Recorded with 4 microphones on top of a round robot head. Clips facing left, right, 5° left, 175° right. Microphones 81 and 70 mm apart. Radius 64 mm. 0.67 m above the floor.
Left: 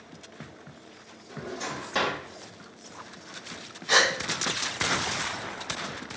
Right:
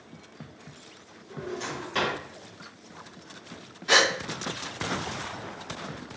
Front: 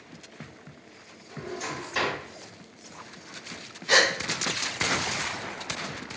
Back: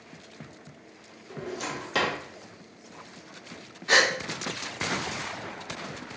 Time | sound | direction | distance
1.3 | a drawer | 170° left | 1.4 m
3.9 | a gasp | 120° right | 1.2 m